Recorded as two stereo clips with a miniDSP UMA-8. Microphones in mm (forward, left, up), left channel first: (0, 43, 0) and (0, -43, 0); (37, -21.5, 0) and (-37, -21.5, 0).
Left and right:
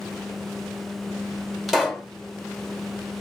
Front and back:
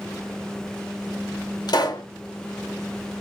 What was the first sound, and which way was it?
A pop, 5° right.